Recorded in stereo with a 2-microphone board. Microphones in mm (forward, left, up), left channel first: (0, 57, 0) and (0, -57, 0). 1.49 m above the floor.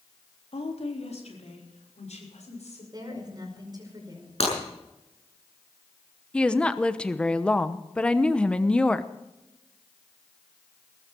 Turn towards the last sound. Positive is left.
turn(degrees=10)  # may be behind; listen again after turning